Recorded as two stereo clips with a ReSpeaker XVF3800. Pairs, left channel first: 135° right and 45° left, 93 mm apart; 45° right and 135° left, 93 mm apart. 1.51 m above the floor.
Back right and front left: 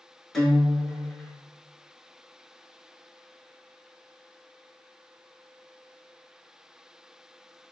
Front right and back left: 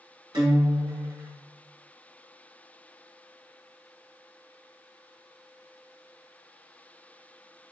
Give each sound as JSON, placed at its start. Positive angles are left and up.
{"t": 0.3, "sound": "a guitar", "azimuth_deg": 145, "distance_m": 0.9}